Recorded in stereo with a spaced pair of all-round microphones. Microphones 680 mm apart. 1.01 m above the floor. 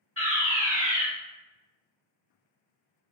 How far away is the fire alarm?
About 1.9 m.